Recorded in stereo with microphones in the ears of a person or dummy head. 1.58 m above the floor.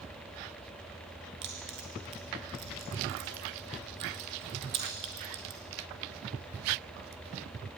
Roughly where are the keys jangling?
Right.